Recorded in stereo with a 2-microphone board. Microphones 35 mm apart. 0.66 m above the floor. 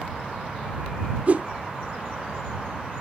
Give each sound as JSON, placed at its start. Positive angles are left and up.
{"t": 1.3, "sound": "a whoosh", "side_deg": -45}